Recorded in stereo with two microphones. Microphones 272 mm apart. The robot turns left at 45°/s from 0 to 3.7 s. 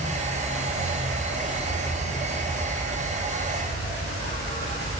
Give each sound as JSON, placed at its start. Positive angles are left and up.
{"t": 0.0, "sound": "an insect", "azimuth_deg": 130, "distance_m": 1.0}